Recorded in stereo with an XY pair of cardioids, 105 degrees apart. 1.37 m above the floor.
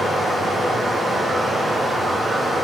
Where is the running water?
55° right, 3 m.